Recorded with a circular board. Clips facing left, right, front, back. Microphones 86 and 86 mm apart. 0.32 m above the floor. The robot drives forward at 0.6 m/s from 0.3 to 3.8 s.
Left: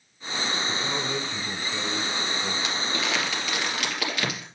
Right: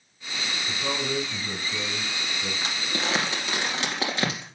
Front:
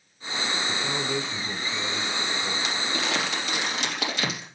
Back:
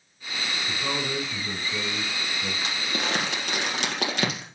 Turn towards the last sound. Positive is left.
turn(degrees=-150)